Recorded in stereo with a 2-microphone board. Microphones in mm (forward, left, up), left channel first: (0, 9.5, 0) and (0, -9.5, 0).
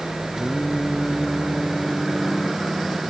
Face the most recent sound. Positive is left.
turn(degrees=15)  # may be behind; listen again after turning